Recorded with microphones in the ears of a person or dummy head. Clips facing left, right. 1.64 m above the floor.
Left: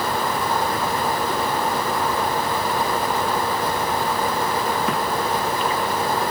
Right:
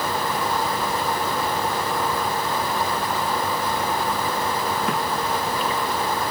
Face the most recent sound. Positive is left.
No sound to turn to.